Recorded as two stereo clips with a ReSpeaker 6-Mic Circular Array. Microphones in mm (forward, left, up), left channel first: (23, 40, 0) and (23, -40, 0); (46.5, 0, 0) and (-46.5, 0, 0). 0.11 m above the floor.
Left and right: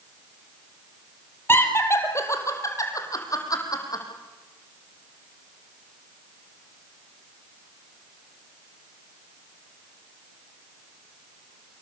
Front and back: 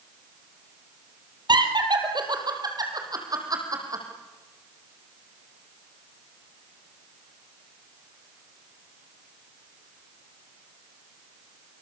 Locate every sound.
1.5 s laughter: 150° left, 3.5 m; by 4.0 s 130° left, 6 m